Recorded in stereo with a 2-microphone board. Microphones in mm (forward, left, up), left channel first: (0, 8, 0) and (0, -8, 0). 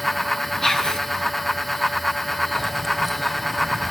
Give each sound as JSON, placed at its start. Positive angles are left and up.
{"t": 0.6, "sound": "whispering", "side_deg": 35, "distance_m": 4.0}
{"t": 2.5, "sound": "keys jangling", "side_deg": -10, "distance_m": 1.0}